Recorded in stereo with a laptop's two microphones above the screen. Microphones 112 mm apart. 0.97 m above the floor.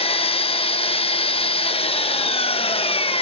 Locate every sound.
0.0 s an engine running: 55° left (ahead or behind), 0.7 m